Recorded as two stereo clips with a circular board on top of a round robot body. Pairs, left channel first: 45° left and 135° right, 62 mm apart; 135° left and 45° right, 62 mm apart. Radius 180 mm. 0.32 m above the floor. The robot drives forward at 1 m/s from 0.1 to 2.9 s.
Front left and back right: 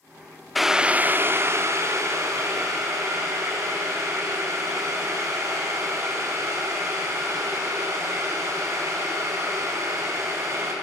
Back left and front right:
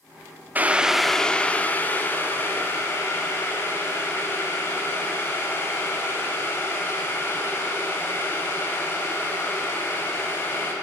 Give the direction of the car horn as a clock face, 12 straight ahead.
No car horn in this recording.